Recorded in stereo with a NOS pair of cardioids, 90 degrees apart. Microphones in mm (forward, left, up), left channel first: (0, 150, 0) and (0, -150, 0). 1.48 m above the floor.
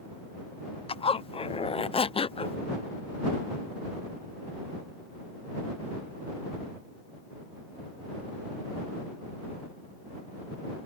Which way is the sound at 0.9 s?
20° left.